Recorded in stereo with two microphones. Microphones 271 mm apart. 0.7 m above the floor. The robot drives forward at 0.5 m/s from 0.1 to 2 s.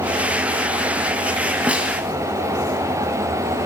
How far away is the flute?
I don't hear a flute.